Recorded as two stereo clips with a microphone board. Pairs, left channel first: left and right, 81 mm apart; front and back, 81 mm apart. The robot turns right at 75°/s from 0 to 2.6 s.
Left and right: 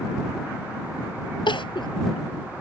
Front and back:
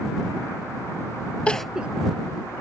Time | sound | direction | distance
1.5 | crying | 75° left | ?